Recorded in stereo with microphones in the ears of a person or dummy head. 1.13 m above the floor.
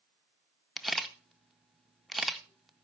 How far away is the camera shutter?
About 0.6 m.